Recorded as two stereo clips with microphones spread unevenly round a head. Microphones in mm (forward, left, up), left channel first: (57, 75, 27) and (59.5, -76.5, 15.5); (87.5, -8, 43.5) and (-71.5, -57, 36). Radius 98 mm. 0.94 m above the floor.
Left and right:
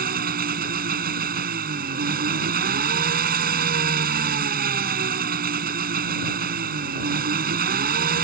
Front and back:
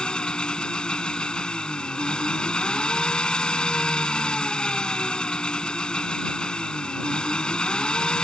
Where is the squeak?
No squeak in this recording.